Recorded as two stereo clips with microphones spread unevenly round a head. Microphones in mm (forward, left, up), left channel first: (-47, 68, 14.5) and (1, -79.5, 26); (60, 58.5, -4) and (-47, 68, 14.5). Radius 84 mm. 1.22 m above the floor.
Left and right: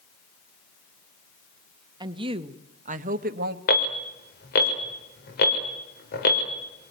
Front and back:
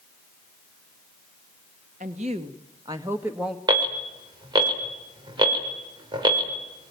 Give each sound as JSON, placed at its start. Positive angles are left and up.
{"t": 2.0, "sound": "a woman speaking", "azimuth_deg": -135, "distance_m": 1.4}
{"t": 3.7, "sound": "an alarm", "azimuth_deg": 130, "distance_m": 4.0}